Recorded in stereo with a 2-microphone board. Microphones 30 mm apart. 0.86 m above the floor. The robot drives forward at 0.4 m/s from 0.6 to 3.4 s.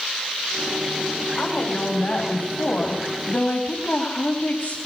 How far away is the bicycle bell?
I don't hear a bicycle bell.